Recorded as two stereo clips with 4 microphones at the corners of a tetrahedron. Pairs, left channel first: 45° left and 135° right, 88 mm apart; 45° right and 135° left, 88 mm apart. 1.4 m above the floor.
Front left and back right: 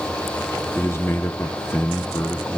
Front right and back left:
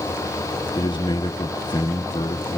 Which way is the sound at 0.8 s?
15° right.